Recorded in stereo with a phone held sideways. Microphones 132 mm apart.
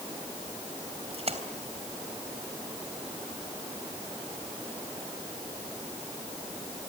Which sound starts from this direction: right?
A splash, at 1.1 s.